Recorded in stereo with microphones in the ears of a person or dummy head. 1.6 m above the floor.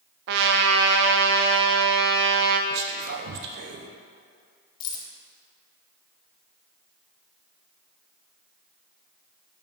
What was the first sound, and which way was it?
A trumpet, 70° right (ahead or behind).